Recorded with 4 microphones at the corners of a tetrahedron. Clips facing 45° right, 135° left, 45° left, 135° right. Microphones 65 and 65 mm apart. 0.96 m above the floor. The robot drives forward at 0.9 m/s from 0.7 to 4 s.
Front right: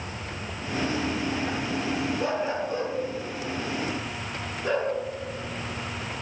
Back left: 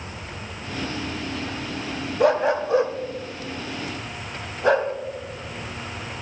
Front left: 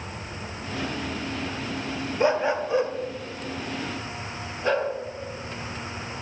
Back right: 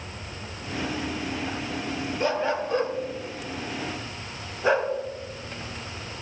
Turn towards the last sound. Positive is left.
turn(degrees=150)